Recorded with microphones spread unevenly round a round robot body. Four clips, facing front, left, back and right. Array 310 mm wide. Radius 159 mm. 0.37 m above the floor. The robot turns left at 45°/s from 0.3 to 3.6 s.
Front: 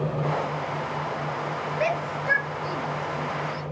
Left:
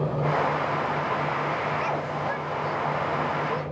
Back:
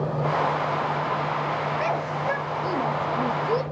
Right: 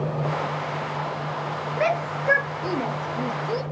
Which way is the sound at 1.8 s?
80° right.